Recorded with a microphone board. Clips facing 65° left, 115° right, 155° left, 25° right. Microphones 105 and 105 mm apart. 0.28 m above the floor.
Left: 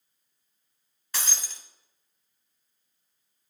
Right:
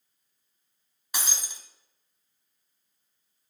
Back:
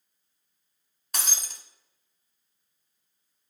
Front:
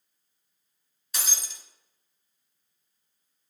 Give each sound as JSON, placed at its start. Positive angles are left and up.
{"t": 1.1, "sound": "breaking glass", "azimuth_deg": 175, "distance_m": 1.1}